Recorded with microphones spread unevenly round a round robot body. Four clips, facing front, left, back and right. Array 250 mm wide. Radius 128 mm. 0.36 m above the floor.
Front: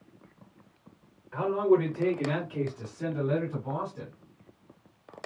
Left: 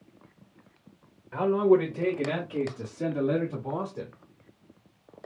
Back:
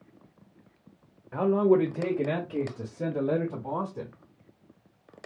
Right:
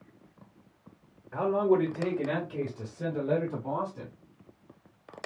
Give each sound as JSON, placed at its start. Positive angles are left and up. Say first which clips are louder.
{"t": 1.3, "sound": "a man speaking", "louder": "left 3 dB, back 2 dB", "azimuth_deg": 165, "distance_m": 1.0}